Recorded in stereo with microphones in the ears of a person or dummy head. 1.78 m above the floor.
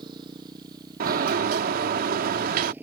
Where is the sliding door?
55° right (ahead or behind).